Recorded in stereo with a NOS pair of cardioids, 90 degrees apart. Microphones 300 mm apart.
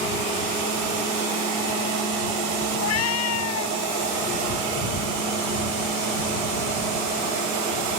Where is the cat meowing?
60° left.